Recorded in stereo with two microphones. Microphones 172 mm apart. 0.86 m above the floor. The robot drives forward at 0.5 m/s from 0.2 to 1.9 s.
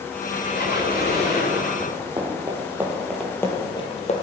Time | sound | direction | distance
0.2 | a squeak | 60° left (ahead or behind) | 2 m
1.8 | running footsteps | 35° right (ahead or behind) | 2.5 m